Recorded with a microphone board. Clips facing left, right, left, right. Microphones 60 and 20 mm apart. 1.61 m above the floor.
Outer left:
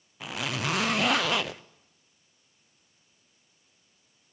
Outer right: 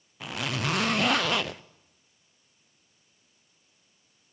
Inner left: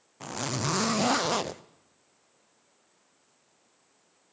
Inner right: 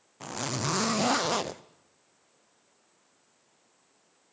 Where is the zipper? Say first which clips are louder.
Outer right 1 dB, inner left 1 dB; centre (ahead or behind), 0.5 m.